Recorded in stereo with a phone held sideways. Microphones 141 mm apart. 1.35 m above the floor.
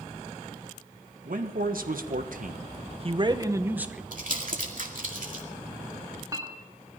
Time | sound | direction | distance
1.2 | a man speaking | 80° right | 1.4 m
4.1 | crumpling | 70° right (ahead or behind) | 2 m
6.0 | a clink | 25° right (ahead or behind) | 2 m